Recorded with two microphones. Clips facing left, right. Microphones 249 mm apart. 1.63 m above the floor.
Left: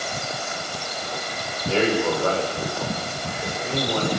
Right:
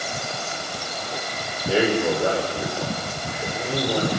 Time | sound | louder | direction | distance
1.7 | a man speaking | right 1 dB | 20° right (ahead or behind) | 6.5 m